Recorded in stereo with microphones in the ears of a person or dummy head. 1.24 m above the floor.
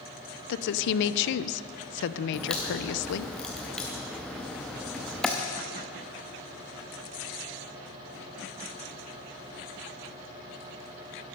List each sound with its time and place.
0.5 s a woman speaking: 65° left (ahead or behind), 0.5 m
2.3 s a crack: centre (ahead or behind), 0.7 m